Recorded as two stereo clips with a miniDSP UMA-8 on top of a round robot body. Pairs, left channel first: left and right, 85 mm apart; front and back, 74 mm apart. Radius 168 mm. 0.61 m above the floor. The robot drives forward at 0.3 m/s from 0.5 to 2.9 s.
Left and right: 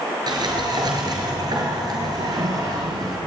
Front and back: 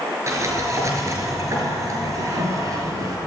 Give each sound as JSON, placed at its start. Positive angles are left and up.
{"t": 0.3, "sound": "a sliding door", "azimuth_deg": -130, "distance_m": 5.0}